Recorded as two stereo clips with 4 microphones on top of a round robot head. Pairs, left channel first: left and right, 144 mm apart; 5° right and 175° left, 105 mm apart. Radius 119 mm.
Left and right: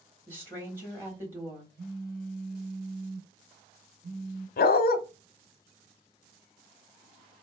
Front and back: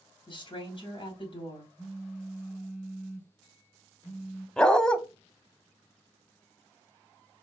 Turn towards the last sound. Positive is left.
turn(degrees=80)